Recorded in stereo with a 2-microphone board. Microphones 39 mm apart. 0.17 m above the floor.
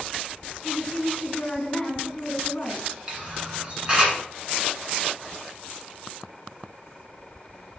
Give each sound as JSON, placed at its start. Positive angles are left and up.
{"t": 0.6, "sound": "a woman speaking", "side_deg": 20, "distance_m": 1.6}
{"t": 3.1, "sound": "a camera shutter", "side_deg": -25, "distance_m": 1.8}